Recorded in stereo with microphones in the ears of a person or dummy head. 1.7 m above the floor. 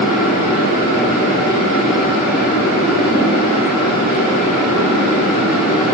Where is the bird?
No bird in this recording.